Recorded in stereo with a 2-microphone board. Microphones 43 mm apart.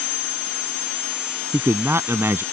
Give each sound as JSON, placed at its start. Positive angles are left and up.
{"t": 1.5, "sound": "a man speaking", "side_deg": -65}